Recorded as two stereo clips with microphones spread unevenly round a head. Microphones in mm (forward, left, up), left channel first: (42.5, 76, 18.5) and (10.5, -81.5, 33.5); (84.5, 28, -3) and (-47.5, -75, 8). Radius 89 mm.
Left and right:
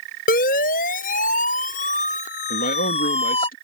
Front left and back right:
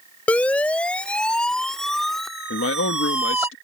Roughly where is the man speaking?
Ahead left.